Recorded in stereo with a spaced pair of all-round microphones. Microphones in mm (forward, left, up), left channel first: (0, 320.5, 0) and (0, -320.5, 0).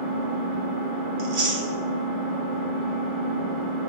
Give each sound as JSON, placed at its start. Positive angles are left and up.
{"t": 0.0, "sound": "an engine running", "side_deg": -45, "distance_m": 0.9}
{"t": 1.2, "sound": "chewing", "side_deg": -70, "distance_m": 0.8}